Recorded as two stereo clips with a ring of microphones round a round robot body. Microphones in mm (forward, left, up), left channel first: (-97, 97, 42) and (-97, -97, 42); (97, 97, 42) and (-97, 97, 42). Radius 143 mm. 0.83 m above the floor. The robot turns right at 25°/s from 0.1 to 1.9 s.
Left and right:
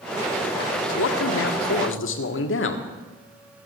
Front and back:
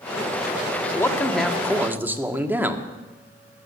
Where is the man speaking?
75° left, 1.5 m; by 2.8 s 100° left, 1.5 m.